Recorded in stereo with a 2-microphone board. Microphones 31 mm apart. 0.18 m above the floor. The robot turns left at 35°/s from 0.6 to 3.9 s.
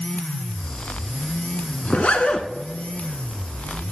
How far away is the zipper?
About 1.0 m.